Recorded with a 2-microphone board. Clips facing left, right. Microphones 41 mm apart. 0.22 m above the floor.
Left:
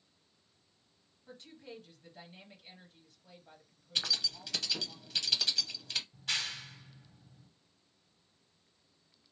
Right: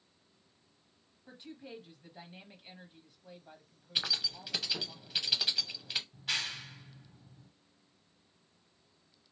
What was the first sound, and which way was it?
A woman speaking, 15° right (ahead or behind).